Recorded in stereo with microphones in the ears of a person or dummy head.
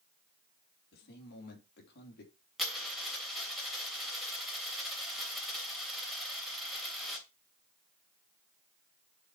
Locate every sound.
0.9 s a man speaking: 60° left (ahead or behind), 3.5 m
2.6 s a dropped coin: centre (ahead or behind), 3.5 m